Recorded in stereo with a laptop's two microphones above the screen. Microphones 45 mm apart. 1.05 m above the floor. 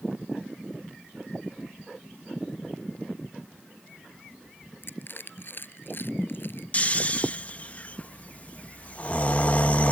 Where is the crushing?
50° left (ahead or behind).